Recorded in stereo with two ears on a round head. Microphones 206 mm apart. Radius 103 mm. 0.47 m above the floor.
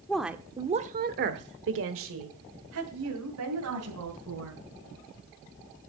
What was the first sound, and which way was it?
A woman speaking, 5° left (ahead or behind).